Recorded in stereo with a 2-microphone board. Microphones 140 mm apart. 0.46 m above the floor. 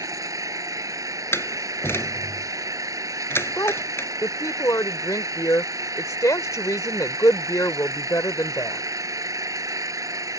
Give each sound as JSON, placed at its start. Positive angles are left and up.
{"t": 0.0, "sound": "an engine running", "side_deg": -25}
{"t": 1.3, "sound": "a door slam", "side_deg": 15}
{"t": 3.6, "sound": "a woman speaking", "side_deg": 20}